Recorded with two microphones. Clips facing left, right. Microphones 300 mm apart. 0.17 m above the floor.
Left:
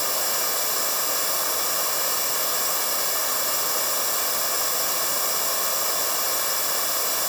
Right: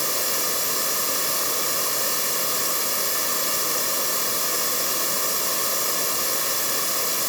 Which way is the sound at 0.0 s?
30° right (ahead or behind).